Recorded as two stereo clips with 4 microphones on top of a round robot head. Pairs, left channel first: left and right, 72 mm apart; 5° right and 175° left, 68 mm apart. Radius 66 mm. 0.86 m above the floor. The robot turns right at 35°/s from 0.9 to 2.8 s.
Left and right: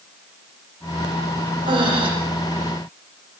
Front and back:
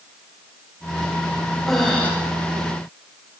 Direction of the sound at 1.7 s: 95° right.